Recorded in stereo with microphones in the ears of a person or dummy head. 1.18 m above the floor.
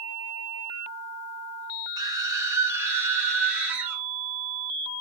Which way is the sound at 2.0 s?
20° right (ahead or behind).